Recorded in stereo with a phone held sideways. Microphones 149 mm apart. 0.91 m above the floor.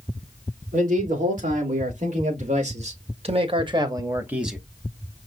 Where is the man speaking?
75° right (ahead or behind), 3 m; by 4.6 s centre (ahead or behind), 1.0 m.